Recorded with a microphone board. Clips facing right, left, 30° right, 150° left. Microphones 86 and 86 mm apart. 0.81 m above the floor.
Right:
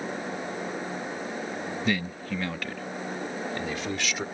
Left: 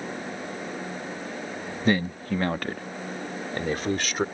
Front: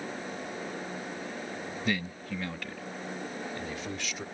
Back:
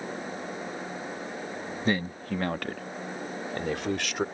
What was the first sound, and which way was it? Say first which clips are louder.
A man speaking: left 7 dB, back 5 dB; 115° left.